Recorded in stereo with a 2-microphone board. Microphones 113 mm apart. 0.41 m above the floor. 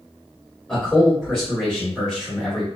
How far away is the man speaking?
About 1.2 m.